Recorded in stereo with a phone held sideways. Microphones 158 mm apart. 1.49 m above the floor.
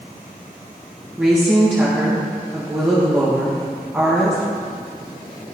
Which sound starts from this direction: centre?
A woman speaking, at 1.2 s.